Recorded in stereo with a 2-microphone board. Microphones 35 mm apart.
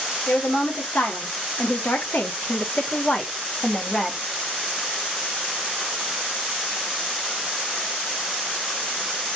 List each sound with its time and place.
0.3 s a woman speaking: 75° left (ahead or behind), 2.0 m; by 4.2 s 20° left (ahead or behind), 1.1 m